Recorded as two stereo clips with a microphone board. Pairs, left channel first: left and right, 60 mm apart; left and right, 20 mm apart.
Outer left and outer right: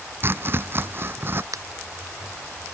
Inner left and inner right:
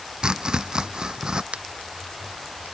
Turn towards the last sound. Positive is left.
turn(degrees=-80)